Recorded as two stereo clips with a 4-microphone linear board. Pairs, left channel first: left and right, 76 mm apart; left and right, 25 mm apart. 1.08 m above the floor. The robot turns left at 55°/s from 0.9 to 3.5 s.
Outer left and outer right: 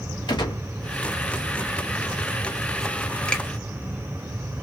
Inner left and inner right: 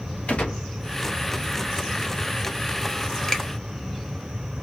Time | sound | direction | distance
0.3 | a gunshot | 75° left (ahead or behind) | 2.0 m
3.3 | a finger snap | 15° left (ahead or behind) | 1.6 m